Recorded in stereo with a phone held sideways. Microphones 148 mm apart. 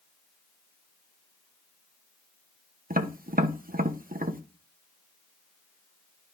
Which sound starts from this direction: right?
Tapping, at 2.9 s.